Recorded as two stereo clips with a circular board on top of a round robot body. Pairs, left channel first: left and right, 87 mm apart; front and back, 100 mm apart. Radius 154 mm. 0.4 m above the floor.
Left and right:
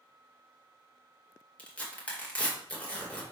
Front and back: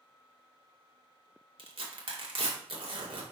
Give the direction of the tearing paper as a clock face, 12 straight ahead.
7 o'clock.